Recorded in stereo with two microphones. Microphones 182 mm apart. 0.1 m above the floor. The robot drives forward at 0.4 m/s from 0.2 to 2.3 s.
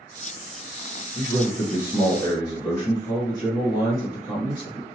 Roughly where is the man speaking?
Left.